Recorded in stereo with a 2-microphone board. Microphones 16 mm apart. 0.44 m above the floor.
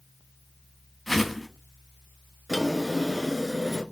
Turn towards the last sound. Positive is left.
turn(degrees=10)  # may be behind; listen again after turning